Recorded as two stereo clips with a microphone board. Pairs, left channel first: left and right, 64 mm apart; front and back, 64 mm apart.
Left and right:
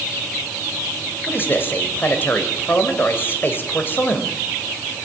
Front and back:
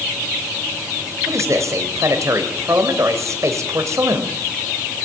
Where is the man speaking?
145° left, 3 m.